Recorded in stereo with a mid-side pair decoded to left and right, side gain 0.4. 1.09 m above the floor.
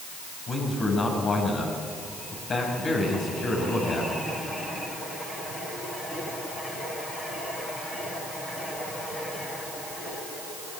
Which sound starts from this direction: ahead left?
A man speaking, at 0.5 s.